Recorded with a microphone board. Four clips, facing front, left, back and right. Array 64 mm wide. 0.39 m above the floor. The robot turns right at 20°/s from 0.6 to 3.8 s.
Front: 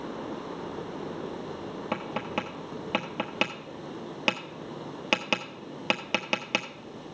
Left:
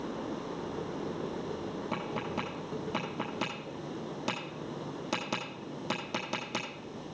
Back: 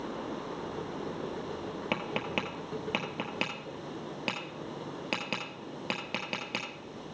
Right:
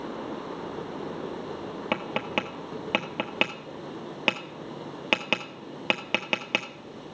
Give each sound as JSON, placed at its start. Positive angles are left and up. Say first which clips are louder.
{"t": 1.9, "sound": "tapping", "louder": "right 8 dB, front 2 dB", "azimuth_deg": -105, "distance_m": 1.4}